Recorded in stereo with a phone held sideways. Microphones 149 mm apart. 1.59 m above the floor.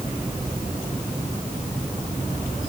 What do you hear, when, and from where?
Only background noise.